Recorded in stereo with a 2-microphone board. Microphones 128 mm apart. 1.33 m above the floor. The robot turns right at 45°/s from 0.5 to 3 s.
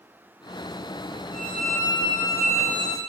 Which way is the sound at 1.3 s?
20° right.